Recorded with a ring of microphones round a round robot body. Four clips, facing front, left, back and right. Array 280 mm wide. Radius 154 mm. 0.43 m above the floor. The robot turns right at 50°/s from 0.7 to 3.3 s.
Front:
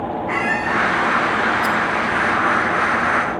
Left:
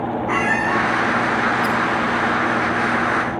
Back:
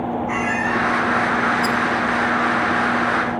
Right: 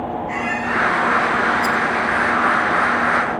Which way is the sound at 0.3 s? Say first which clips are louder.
Left 5 dB, front 3 dB; 70° left.